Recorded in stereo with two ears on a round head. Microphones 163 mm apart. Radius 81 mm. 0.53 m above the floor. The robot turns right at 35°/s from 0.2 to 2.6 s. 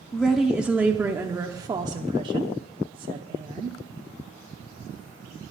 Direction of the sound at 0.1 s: Centre (ahead or behind).